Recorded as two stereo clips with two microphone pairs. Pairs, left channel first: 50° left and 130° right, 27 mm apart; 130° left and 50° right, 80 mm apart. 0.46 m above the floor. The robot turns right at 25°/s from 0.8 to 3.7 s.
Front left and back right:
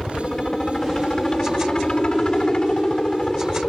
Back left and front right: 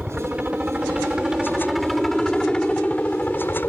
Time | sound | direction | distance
0.0 | a helicopter | 15° left | ?